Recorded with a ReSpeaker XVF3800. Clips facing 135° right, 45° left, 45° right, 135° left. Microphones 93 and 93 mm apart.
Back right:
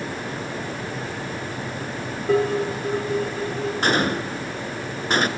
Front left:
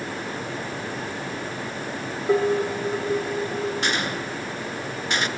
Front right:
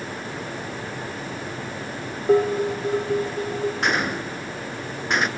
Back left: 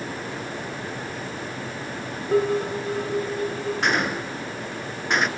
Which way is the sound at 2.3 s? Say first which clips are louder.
Even, front right 3 dB; 35° right.